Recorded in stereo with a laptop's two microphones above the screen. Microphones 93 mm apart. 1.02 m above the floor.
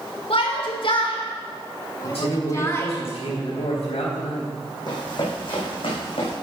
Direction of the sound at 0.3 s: 75° left (ahead or behind).